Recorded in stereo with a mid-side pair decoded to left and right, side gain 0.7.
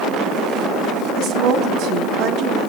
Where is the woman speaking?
55° right, 1.6 m.